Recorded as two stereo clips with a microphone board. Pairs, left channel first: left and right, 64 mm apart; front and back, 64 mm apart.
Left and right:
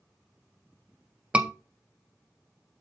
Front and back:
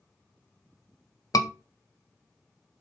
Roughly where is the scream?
Ahead.